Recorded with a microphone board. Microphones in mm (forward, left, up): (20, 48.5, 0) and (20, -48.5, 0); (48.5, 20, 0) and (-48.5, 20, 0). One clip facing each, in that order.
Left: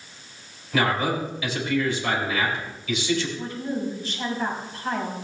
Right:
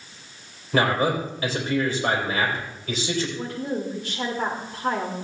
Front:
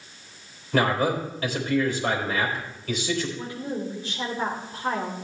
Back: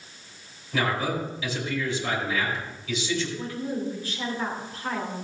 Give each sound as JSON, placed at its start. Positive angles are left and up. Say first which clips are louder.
{"t": 0.7, "sound": "a man speaking", "louder": "right 2 dB, front 4 dB", "azimuth_deg": -40, "distance_m": 3.5}
{"t": 3.4, "sound": "a woman speaking", "louder": "right 1 dB, back 1 dB", "azimuth_deg": -65, "distance_m": 2.5}